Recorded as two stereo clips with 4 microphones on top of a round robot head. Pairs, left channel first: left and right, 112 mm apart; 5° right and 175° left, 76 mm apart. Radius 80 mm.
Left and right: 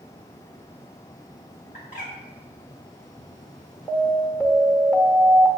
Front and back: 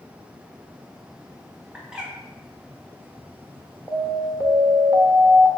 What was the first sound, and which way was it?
A bird, 95° left.